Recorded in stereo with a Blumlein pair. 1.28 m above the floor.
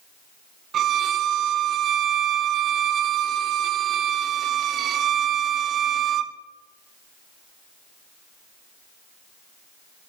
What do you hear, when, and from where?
0.7 s a violin: 30° right, 0.6 m